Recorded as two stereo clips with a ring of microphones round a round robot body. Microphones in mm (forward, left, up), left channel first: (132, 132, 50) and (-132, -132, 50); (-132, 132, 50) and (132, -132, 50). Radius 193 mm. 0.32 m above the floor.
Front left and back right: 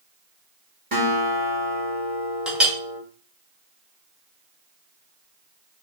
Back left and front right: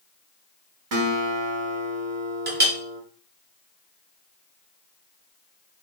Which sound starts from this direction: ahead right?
A clink, at 2.5 s.